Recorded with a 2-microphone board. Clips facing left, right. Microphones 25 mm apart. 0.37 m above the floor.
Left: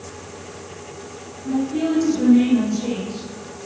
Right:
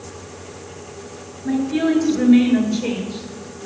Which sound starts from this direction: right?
A woman speaking, at 1.4 s.